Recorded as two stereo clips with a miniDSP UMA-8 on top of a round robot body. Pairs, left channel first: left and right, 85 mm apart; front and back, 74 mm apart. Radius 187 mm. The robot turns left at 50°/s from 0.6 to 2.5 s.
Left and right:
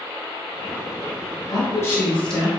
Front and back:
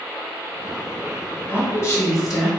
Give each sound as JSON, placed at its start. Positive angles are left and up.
{"t": 1.5, "sound": "a woman speaking", "azimuth_deg": 55, "distance_m": 1.3}